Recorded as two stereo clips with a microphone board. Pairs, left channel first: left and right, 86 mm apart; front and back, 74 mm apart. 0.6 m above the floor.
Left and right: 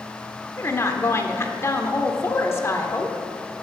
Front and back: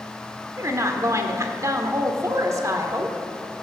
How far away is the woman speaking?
About 1.4 m.